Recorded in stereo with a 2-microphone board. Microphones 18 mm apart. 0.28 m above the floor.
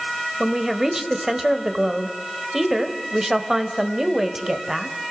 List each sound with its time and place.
0.4 s a woman speaking: 20° right (ahead or behind), 1.5 m